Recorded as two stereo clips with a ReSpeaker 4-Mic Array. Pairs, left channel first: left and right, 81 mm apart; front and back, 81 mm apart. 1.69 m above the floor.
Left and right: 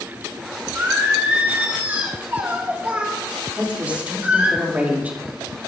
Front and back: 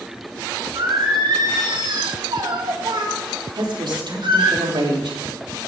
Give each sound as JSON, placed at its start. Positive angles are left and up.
{"t": 0.8, "sound": "singing", "azimuth_deg": -160, "distance_m": 2.5}
{"t": 3.5, "sound": "a woman speaking", "azimuth_deg": -165, "distance_m": 4.0}